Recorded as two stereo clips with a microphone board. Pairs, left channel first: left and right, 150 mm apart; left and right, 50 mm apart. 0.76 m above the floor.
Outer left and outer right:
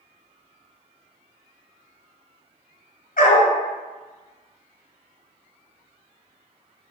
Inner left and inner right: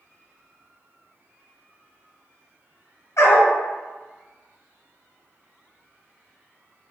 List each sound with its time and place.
3.2 s a dog barking: 70° left (ahead or behind), 0.9 m